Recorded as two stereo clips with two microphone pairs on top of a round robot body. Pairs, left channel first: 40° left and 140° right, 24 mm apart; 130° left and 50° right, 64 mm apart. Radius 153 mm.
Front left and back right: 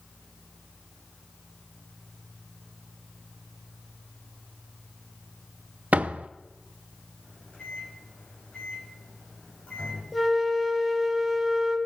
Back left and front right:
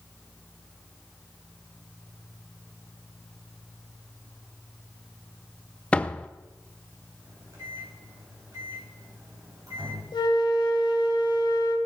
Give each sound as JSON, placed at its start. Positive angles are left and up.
{"t": 5.9, "sound": "a door slam", "azimuth_deg": -155, "distance_m": 0.6}
{"t": 7.2, "sound": "a microwave", "azimuth_deg": -5, "distance_m": 5.5}
{"t": 10.1, "sound": "a flute", "azimuth_deg": 130, "distance_m": 2.0}